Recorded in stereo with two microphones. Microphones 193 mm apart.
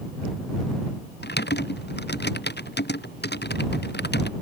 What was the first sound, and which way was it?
Typing on a keyboard, 60° left (ahead or behind).